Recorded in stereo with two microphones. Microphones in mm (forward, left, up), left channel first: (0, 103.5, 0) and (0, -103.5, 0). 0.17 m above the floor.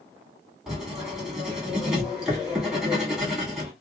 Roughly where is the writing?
Centre.